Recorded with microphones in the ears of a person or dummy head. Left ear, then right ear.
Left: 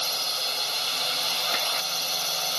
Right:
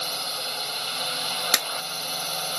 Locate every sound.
0.0 s a drone: 30° left (ahead or behind)
1.5 s a clap: 80° right